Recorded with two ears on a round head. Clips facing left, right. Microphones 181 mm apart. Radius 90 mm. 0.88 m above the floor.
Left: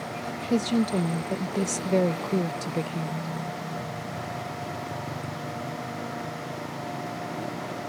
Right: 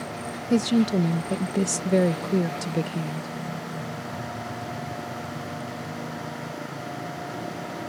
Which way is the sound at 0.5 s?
15° right (ahead or behind).